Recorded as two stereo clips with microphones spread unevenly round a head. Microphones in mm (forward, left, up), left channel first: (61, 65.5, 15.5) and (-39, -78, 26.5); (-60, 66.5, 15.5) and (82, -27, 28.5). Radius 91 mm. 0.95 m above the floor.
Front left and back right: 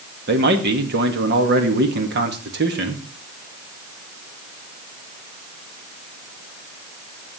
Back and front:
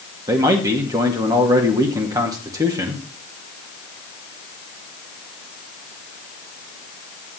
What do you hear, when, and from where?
0.3 s a man speaking: 105° right, 1.9 m